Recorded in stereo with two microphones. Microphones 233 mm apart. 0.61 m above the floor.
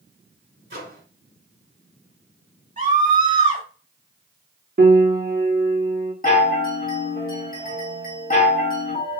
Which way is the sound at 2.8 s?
35° right (ahead or behind).